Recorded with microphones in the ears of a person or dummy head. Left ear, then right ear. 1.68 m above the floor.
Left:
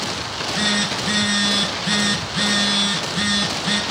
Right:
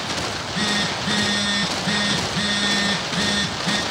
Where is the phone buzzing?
10° left (ahead or behind), 1.1 m.